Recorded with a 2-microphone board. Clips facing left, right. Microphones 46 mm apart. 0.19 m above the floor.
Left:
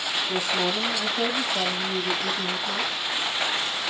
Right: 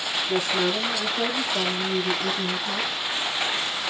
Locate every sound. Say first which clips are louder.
0.3 s a woman speaking: right 3 dB; 50° right (ahead or behind), 4 m; by 2.9 s 35° right (ahead or behind), 5 m